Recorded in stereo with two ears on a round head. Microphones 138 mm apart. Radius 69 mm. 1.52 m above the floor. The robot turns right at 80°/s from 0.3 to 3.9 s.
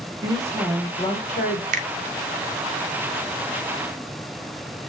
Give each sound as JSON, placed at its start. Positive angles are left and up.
{"t": 0.2, "sound": "a woman speaking", "azimuth_deg": -30, "distance_m": 1.0}
{"t": 1.7, "sound": "a finger snap", "side_deg": -50, "distance_m": 0.5}